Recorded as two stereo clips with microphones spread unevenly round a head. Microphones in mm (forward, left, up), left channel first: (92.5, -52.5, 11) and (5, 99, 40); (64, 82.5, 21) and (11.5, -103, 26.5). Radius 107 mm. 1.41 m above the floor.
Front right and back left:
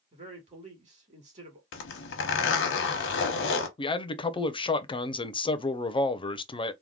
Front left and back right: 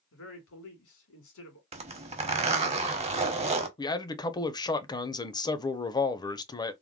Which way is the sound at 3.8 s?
5° left.